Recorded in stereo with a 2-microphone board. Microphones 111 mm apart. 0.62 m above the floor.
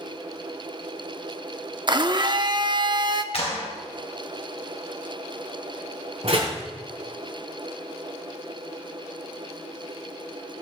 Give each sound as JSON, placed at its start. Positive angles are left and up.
{"t": 1.9, "sound": "a blender", "side_deg": -45, "distance_m": 0.7}
{"t": 3.3, "sound": "a clap", "side_deg": 65, "distance_m": 3.0}
{"t": 6.2, "sound": "a door slam", "side_deg": -65, "distance_m": 5.5}